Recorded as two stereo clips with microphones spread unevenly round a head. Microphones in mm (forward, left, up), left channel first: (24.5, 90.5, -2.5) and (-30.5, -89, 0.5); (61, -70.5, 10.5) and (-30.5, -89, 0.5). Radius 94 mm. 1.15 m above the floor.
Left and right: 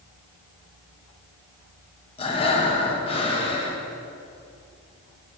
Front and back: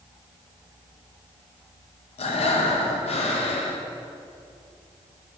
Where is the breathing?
10° left, 0.9 m.